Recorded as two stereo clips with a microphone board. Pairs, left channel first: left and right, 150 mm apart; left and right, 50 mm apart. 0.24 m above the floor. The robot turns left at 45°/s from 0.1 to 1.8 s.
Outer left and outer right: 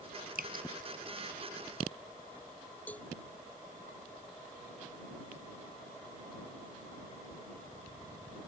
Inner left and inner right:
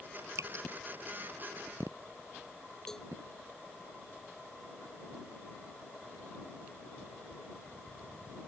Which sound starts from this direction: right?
Dripping, at 0.3 s.